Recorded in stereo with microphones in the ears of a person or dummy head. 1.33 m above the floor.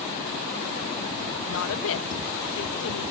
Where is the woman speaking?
65° left (ahead or behind).